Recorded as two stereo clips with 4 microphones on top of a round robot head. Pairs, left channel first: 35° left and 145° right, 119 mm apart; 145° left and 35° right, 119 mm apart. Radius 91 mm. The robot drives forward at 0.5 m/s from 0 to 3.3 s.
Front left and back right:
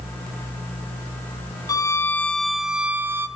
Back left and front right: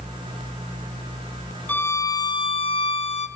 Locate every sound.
1.7 s a violin: 75° left, 0.7 m; by 3.3 s 150° left, 1.0 m